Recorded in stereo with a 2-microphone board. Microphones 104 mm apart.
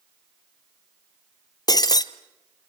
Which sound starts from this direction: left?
Breaking glass, at 1.7 s.